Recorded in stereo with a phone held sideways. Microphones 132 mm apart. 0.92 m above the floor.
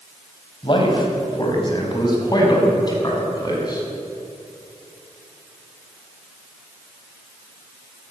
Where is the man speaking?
35° left (ahead or behind), 4.5 m; by 3.8 s 30° left (ahead or behind), 6.5 m.